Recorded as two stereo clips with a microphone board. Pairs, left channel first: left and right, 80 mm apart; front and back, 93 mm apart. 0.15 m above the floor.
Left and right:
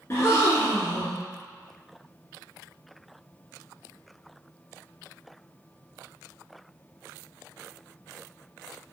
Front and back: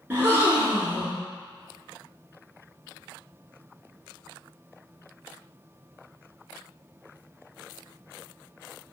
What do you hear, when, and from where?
0.1 s a gasp: 125° left, 1.0 m